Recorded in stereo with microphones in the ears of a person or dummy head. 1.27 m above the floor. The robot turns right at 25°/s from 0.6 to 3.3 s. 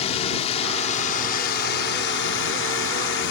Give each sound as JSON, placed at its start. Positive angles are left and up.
{"t": 0.0, "sound": "a drone", "azimuth_deg": 40}